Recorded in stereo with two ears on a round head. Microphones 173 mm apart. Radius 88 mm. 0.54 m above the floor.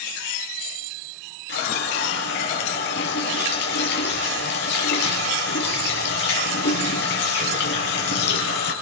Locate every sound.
1.5 s a running tap: 55° left (ahead or behind), 6.5 m